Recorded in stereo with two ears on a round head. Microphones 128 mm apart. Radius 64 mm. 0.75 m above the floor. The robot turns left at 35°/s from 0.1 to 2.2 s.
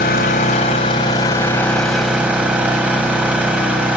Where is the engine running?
65° left, 4 m; by 4.0 s 10° right, 4 m.